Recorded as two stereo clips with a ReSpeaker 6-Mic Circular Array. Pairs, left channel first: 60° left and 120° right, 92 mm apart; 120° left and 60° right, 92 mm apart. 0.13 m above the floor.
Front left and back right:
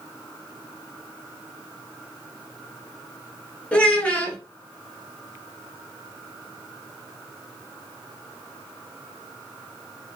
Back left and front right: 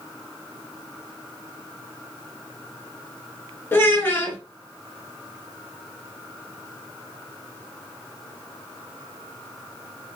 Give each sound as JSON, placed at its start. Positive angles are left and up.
{"t": 3.7, "sound": "a child speaking", "azimuth_deg": 120, "distance_m": 1.0}